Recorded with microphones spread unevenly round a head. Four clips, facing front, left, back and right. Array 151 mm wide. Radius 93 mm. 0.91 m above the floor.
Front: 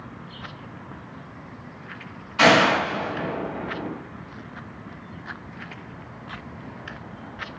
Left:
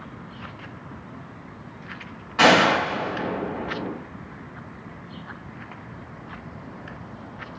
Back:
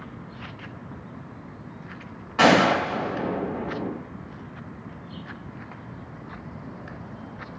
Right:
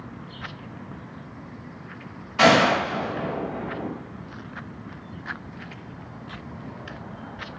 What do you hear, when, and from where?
2.4 s a gunshot: 175° left, 1.5 m